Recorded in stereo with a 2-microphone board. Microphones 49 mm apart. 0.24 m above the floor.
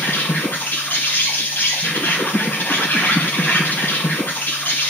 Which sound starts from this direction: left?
An insect, at 0.0 s.